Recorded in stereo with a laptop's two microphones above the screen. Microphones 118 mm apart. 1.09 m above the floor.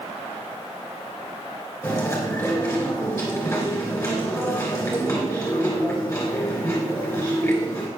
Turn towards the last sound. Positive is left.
turn(degrees=25)  # may be behind; listen again after turning